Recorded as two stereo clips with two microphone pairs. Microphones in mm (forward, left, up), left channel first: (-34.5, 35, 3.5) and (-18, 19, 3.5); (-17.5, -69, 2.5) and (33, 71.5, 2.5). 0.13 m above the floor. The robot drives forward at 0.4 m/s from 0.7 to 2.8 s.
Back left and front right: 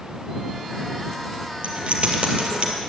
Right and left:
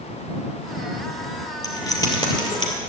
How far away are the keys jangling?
About 2 m.